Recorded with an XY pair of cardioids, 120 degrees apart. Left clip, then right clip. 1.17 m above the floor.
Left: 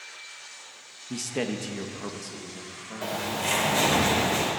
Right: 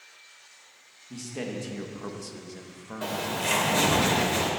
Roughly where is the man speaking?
Ahead left.